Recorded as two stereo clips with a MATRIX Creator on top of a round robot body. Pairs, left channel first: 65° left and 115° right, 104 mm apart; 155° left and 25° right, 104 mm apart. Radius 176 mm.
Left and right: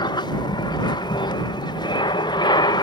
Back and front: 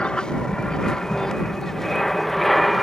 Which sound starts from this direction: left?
An aircraft, at 0.0 s.